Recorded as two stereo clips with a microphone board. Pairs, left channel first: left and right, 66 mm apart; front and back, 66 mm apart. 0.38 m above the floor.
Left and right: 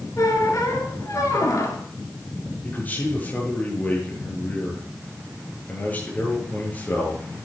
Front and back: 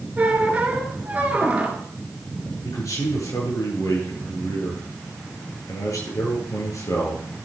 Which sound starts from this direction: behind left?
A squeak, at 0.2 s.